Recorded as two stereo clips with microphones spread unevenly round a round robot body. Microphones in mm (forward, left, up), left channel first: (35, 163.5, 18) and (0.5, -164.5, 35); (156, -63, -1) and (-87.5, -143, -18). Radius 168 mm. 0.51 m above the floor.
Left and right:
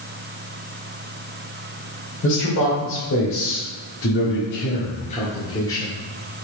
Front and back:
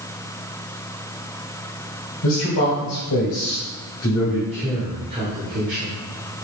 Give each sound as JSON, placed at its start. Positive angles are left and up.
{"t": 2.2, "sound": "a man speaking", "azimuth_deg": 30, "distance_m": 3.0}